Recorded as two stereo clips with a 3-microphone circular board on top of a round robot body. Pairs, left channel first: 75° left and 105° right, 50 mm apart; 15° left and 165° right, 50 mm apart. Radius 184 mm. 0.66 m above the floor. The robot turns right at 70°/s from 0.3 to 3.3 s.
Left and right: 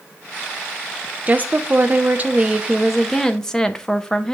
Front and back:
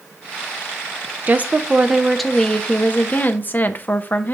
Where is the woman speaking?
140° right, 0.8 m; by 4.3 s straight ahead, 0.8 m.